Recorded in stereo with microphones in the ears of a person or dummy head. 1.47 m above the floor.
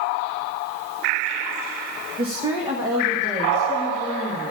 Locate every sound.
2.2 s a woman speaking: 40° right (ahead or behind), 1.6 m; by 4.5 s 10° right (ahead or behind), 2.5 m